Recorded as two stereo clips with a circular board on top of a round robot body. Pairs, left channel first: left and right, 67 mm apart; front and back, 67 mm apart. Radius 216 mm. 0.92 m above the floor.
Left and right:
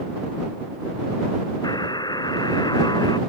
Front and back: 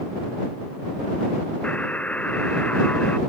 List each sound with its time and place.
1.6 s a buzzer: 70° left